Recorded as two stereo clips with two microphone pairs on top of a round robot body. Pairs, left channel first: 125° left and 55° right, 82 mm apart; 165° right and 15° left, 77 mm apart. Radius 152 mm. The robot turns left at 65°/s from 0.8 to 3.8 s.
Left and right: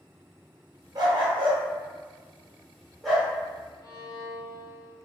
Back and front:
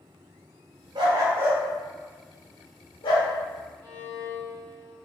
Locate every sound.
0.9 s a dog barking: 10° right, 1.1 m; by 3.3 s 165° right, 1.1 m
3.8 s a violin: 150° left, 1.9 m